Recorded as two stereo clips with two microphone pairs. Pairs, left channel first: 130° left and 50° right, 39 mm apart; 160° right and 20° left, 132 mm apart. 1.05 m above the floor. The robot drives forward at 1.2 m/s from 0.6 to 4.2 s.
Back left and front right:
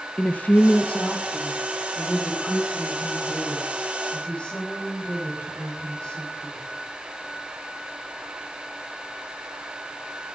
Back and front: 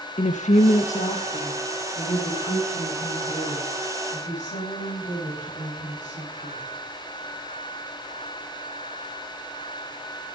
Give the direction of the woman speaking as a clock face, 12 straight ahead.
6 o'clock.